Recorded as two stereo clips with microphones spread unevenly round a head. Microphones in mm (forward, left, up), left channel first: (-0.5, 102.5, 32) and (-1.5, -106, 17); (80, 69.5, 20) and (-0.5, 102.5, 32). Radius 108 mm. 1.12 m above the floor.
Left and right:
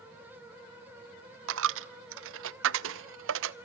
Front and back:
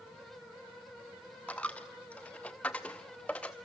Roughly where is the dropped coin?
Right.